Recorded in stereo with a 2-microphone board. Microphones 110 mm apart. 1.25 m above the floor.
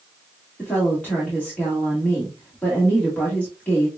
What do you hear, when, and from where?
0.6 s a woman speaking: 15° left (ahead or behind), 1.6 m